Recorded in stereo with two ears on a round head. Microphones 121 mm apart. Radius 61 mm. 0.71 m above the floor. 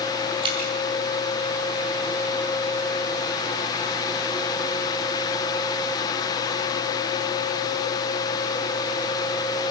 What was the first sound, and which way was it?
Dripping, 40° right (ahead or behind).